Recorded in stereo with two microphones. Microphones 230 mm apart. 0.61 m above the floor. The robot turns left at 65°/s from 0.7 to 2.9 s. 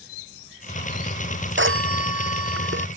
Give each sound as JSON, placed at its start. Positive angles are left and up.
{"t": 1.6, "sound": "a phone ringing", "azimuth_deg": -50}